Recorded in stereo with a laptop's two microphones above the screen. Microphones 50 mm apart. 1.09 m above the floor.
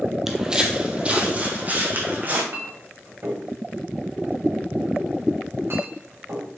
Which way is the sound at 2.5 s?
55° right (ahead or behind).